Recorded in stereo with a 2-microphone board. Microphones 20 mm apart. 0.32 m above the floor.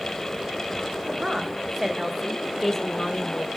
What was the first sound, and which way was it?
A woman speaking, 40° right (ahead or behind).